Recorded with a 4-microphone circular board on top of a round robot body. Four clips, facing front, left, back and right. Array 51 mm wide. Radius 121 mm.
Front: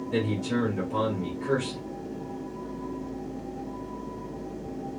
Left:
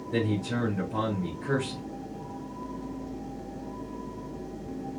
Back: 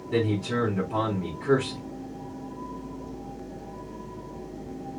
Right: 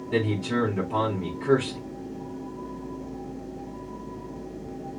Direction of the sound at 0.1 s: 105° right.